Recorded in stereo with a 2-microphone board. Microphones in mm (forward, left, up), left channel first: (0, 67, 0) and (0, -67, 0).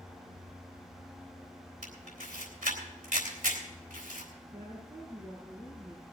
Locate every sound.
1.8 s a camera shutter: 75° right (ahead or behind), 3.5 m
4.5 s a woman speaking: 35° right (ahead or behind), 8 m